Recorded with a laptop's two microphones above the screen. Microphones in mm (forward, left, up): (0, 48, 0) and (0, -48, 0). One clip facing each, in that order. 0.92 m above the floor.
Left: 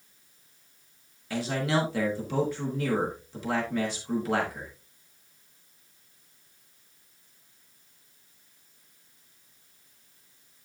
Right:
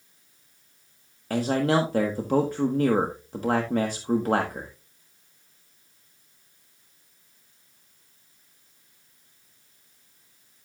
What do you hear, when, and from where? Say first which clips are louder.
1.3 s a man speaking: right 5 dB; 45° right (ahead or behind), 1.1 m